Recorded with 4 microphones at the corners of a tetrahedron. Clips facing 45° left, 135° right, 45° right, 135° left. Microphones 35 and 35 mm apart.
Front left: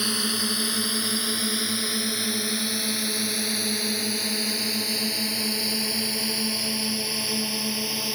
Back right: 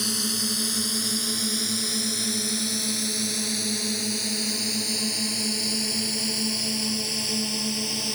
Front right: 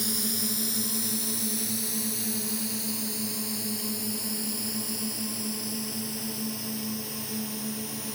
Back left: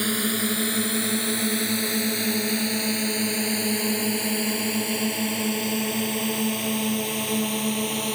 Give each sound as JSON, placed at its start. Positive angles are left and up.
{"t": 0.0, "sound": "a drone", "azimuth_deg": 110}